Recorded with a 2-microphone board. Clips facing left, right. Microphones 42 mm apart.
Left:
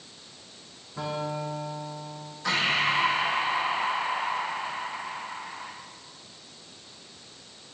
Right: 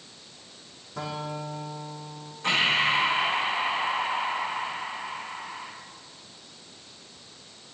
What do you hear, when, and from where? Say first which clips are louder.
1.0 s a guitar: left 2 dB; 80° right, 9.5 m
2.4 s breathing: right 2 dB; 50° right (ahead or behind), 5.5 m